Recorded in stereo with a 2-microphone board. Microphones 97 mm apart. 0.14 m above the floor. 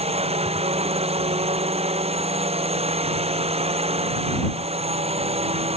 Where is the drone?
85° right.